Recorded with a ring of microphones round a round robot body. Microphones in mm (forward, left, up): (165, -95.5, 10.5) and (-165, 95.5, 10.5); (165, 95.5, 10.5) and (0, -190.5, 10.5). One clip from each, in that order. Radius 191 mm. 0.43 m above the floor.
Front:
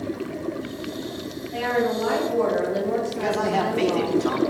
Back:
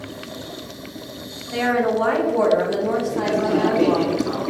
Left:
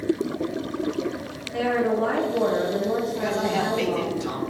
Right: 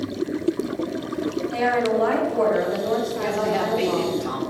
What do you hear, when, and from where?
1.5 s a woman speaking: 175° right, 2.5 m
3.1 s a man speaking: 10° right, 3 m